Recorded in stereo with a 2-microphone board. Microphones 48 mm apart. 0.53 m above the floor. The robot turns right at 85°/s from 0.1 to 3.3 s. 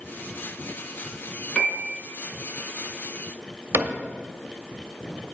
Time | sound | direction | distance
1.6 | a piano | 25° left | 4 m
3.7 | a cupboard door | 80° right | 1.0 m